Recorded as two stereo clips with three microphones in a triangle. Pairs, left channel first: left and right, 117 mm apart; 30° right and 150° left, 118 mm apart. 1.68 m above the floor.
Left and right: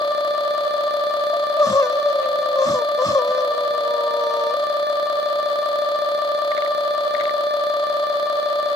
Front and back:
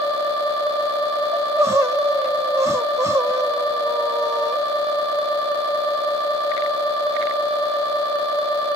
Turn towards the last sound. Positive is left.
turn(degrees=110)